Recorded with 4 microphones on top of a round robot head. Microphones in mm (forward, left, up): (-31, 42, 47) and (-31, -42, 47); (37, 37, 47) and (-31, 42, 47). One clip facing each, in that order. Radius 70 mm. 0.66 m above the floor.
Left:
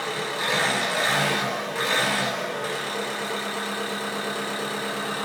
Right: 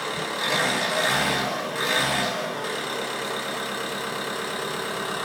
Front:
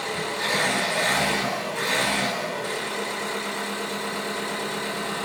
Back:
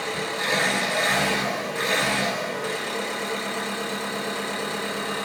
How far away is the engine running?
About 1.7 m.